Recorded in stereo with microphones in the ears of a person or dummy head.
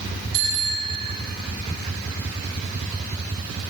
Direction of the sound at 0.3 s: 55° right (ahead or behind).